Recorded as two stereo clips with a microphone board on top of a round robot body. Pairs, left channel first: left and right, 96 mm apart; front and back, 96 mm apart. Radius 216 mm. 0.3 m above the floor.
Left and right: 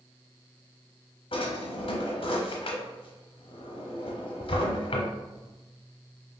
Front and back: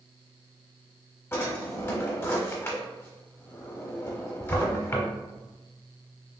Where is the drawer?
65° left, 0.7 m.